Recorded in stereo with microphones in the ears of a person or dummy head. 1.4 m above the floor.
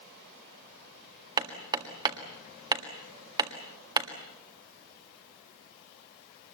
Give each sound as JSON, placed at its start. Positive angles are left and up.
{"t": 1.4, "sound": "hammering", "side_deg": -30, "distance_m": 1.8}